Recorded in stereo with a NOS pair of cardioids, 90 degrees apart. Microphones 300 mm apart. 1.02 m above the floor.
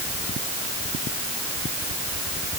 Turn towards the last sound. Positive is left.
No sound to turn to.